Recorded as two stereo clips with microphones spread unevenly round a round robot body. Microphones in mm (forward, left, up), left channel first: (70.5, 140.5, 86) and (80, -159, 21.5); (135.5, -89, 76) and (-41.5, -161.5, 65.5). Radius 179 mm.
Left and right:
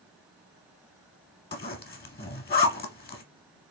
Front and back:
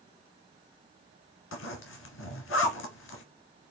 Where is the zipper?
35° left, 1.2 m.